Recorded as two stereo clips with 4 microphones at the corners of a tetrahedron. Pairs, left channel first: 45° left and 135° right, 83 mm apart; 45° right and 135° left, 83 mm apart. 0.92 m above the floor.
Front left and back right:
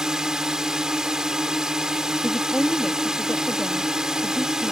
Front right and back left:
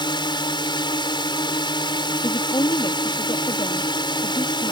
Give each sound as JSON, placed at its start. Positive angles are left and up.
{"t": 0.0, "sound": "a drone", "azimuth_deg": -55}
{"t": 2.2, "sound": "a woman speaking", "azimuth_deg": -35}